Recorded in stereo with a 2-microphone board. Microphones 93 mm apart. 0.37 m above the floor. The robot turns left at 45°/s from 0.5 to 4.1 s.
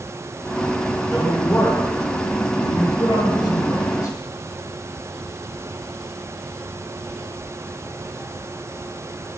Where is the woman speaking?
Straight behind, 2 m; by 4.2 s 40° left, 2 m.